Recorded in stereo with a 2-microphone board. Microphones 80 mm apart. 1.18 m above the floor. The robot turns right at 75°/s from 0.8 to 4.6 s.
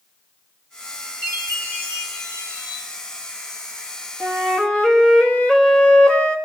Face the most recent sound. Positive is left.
turn(degrees=10)  # may be behind; listen again after turning